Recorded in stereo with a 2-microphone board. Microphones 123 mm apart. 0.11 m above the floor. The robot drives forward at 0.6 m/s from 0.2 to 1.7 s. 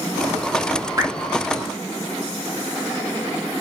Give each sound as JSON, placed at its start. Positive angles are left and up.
{"t": 1.0, "sound": "dripping", "side_deg": -30, "distance_m": 0.8}